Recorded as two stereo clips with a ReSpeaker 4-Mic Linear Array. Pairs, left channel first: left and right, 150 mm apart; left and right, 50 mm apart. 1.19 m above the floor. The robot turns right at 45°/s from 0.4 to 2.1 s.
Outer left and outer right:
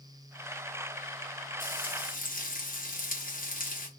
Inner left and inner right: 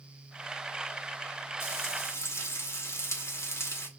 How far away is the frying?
About 1.1 m.